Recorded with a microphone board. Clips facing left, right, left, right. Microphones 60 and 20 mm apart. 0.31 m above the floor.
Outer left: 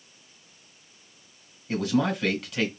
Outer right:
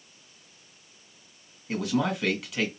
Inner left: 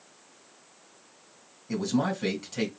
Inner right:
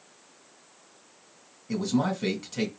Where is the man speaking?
Centre (ahead or behind), 1.8 m.